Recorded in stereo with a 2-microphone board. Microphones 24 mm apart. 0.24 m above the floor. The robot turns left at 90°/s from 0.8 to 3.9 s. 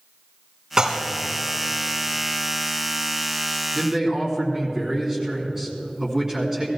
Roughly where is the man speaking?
Centre.